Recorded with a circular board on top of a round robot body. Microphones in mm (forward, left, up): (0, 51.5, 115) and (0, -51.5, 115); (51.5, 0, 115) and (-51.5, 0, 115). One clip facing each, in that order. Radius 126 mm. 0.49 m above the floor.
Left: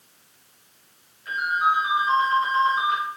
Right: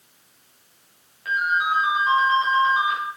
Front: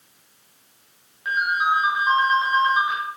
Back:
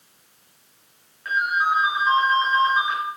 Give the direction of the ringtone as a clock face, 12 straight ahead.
3 o'clock.